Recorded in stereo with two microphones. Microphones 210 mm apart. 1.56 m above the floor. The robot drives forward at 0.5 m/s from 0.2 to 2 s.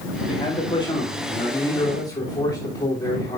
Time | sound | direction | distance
0.3 | a man speaking | 25° left (ahead or behind) | 3 m